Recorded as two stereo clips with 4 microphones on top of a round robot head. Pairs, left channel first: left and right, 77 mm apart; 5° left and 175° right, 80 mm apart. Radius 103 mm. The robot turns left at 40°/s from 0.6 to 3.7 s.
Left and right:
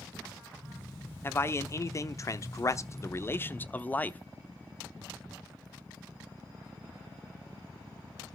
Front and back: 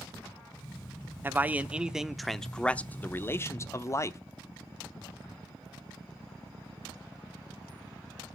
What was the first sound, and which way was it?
A man speaking, 130° left.